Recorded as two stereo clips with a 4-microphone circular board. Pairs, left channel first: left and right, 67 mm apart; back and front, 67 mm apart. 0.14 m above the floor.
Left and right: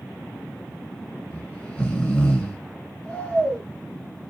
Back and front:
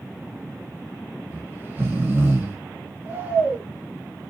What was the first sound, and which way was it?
Snoring, 30° left.